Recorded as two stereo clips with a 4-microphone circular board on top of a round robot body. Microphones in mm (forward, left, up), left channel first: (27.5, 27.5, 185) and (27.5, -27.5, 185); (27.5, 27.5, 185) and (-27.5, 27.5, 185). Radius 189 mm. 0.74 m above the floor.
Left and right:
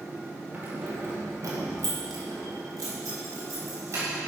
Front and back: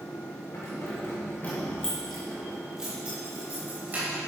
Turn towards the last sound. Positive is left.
turn(degrees=-125)